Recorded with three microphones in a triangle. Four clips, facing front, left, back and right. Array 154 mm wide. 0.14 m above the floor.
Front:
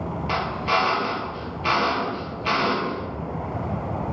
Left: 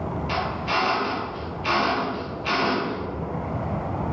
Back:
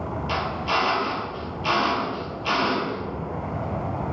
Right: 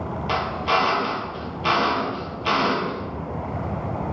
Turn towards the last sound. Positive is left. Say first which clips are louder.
# right 5 dB, front 2 dB
turn(degrees=-70)